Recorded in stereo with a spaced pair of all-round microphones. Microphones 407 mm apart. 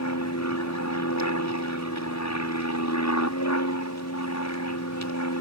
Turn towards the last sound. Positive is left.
turn(degrees=40)  # may be behind; listen again after turning